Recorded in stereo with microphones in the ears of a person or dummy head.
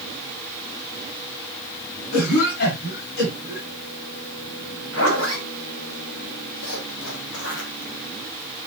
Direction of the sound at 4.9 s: 85° left.